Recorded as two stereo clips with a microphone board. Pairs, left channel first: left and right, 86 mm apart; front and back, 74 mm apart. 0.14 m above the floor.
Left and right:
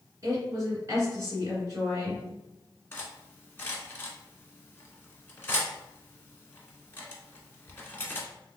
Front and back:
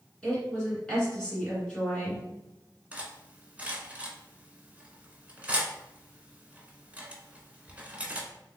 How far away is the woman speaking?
About 2.0 m.